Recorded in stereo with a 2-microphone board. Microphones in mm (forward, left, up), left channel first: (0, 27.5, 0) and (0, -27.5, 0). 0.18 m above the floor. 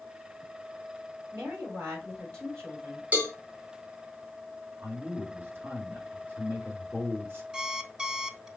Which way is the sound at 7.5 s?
15° right (ahead or behind).